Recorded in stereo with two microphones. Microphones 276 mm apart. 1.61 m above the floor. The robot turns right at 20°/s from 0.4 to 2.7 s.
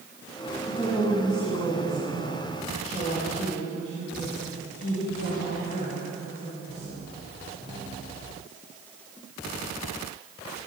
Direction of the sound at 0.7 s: 10° left.